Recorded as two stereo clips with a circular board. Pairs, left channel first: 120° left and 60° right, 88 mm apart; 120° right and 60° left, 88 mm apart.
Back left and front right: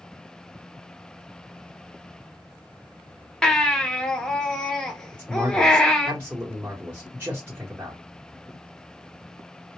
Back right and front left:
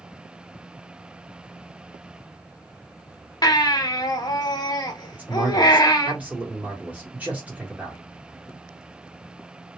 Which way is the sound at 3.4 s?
155° right.